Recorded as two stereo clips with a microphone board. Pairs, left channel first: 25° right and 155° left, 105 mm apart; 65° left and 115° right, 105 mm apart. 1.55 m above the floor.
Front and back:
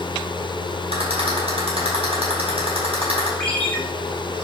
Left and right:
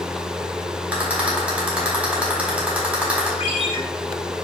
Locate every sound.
0.9 s a rattle: 170° left, 3.5 m
3.4 s a ringtone: 55° left, 1.9 m